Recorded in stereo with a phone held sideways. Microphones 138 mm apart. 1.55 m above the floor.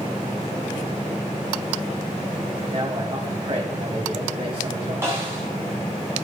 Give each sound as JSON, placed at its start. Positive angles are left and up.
{"t": 2.7, "sound": "a man speaking", "side_deg": -40, "distance_m": 2.0}
{"t": 5.0, "sound": "a snare drum", "side_deg": -20, "distance_m": 2.5}